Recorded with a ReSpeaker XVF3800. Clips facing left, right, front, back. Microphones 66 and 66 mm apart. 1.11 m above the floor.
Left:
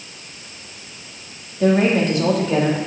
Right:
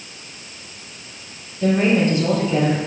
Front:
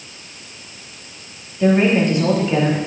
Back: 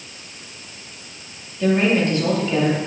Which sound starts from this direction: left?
A woman speaking, at 1.6 s.